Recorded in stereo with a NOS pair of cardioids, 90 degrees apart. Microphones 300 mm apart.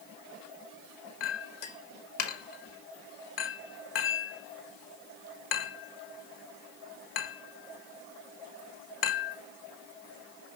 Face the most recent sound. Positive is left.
turn(degrees=55)